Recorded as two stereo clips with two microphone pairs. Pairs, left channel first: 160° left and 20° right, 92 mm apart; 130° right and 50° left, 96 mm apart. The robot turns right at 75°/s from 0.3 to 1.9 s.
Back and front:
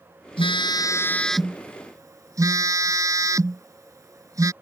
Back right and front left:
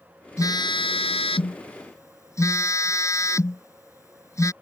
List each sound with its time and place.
0.4 s a phone buzzing: 175° left; by 4.5 s 70° right